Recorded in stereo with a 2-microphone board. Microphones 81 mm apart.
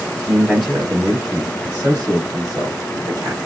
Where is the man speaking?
5° right (ahead or behind), 1.4 m; by 3.4 s 50° right (ahead or behind), 1.6 m.